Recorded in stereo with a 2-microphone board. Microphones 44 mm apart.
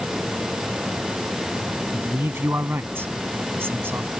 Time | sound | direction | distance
1.9 | a man speaking | 65° right (ahead or behind) | ?